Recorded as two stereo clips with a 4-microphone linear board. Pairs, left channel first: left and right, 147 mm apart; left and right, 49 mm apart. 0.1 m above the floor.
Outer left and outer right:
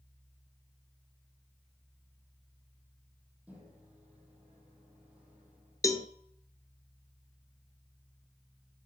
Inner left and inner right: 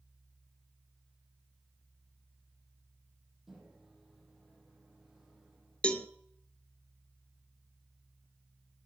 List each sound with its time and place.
3.5 s a microwave: 10° right (ahead or behind), 3.5 m
5.8 s a cowbell: 20° left (ahead or behind), 0.7 m